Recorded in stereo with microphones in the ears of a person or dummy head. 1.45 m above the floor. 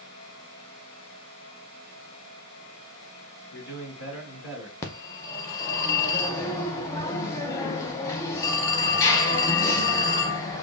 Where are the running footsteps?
I don't hear running footsteps.